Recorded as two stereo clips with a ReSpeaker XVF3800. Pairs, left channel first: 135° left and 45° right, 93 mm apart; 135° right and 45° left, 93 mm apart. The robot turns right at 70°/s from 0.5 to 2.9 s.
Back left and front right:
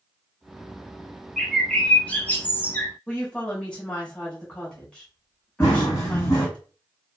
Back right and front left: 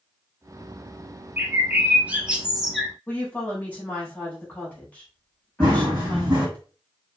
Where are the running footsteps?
80° left, 1.7 m.